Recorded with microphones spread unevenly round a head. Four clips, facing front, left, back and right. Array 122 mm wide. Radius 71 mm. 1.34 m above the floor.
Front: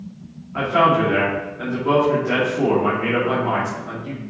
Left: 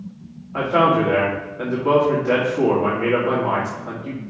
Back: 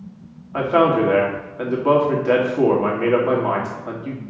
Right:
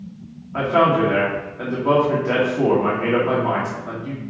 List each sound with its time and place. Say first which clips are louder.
0.5 s a man speaking: even, back 1 dB; 175° left, 2.5 m